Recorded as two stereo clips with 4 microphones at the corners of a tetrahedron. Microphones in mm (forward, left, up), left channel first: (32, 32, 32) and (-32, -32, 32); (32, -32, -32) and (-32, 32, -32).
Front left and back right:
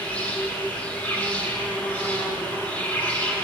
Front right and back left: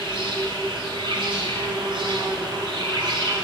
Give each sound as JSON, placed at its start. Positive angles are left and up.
{"t": 0.0, "sound": "an insect", "azimuth_deg": 115, "distance_m": 1.6}